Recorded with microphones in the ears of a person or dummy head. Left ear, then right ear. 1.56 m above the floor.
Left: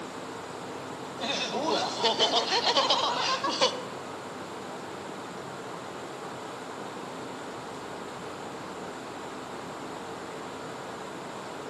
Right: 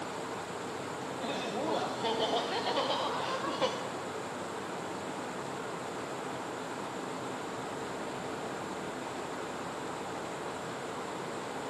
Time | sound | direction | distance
1.2 | laughter | 40° left (ahead or behind) | 0.8 m